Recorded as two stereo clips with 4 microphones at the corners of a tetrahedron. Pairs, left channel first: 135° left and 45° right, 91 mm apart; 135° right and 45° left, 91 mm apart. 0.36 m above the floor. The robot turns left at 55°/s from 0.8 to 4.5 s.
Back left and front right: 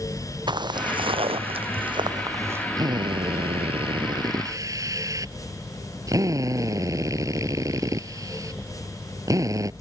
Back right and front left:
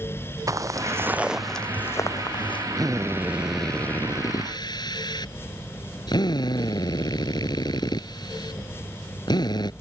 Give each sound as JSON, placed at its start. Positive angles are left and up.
{"t": 0.5, "sound": "footsteps", "azimuth_deg": -10}
{"t": 2.8, "sound": "a drill", "azimuth_deg": 0}